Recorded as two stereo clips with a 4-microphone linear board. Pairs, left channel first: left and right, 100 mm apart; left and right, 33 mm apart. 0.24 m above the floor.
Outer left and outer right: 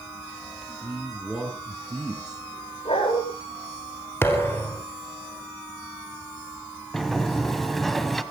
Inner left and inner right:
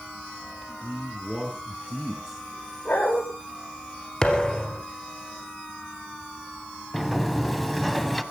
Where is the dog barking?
70° left (ahead or behind), 9 m.